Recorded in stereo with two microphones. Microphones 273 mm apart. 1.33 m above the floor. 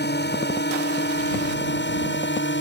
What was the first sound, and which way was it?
A drone, 40° left (ahead or behind).